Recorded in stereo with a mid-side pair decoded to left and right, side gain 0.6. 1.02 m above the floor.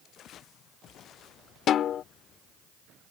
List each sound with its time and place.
1.7 s a snare drum: 50° left